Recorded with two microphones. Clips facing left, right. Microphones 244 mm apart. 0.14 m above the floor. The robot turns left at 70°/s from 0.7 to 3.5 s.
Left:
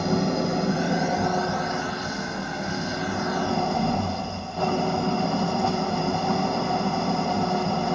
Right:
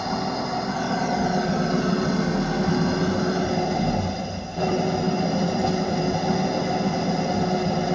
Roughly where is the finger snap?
No finger snap in this recording.